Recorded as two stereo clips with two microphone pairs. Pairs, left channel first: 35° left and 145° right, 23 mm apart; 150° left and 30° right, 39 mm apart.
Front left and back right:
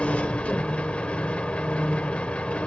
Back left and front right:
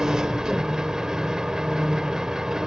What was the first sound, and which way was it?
An engine running, 45° left.